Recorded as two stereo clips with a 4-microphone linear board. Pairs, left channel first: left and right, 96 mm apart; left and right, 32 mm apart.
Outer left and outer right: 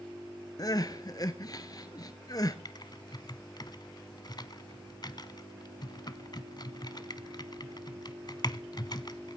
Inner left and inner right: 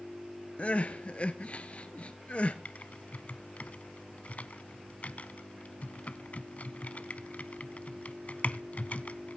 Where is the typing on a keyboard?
50° left (ahead or behind), 0.8 m.